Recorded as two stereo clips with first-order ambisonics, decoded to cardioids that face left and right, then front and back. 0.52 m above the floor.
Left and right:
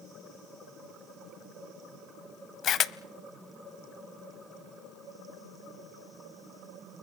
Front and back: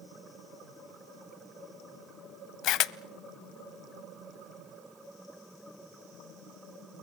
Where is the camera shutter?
35° left, 0.6 m.